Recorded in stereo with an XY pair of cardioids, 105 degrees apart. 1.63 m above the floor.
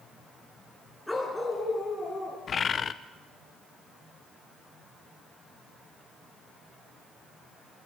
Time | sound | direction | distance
1.1 | a dog barking | 5° left | 5.5 m
2.5 | a bird | 45° left | 1.1 m